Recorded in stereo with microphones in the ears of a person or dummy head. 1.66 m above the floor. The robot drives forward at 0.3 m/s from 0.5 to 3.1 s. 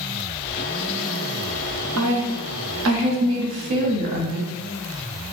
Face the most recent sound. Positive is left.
turn(degrees=-65)  # may be behind; listen again after turning